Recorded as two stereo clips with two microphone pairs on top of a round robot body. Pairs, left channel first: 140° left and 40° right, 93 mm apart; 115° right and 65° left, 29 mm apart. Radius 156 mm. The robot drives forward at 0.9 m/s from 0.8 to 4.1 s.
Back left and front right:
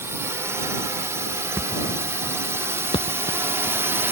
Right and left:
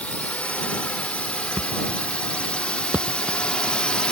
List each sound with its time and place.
0.0 s a drone: 100° right; by 4.1 s 95° right
1.6 s a thud: 30° left; by 3.8 s 145° left